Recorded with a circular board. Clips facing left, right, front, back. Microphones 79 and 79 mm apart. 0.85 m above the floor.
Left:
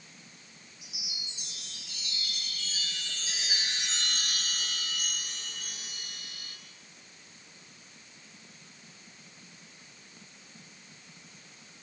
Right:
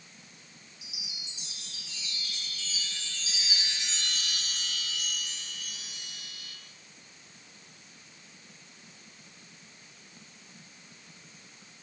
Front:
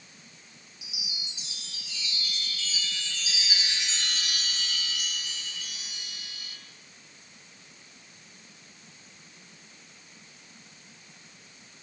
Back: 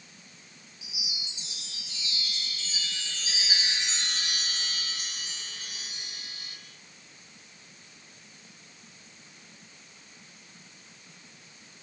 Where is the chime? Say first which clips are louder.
Left 2 dB, even; 125° left, 5.5 m.